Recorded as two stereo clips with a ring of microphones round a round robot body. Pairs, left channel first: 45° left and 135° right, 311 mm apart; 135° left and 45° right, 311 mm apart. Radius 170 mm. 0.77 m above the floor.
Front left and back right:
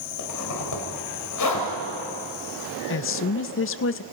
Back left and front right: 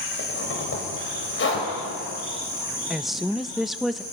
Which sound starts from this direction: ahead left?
A woman speaking, at 2.9 s.